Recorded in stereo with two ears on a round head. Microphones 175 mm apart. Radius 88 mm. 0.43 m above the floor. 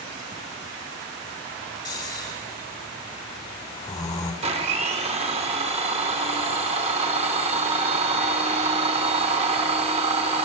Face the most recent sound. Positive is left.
turn(degrees=-30)  # may be behind; listen again after turning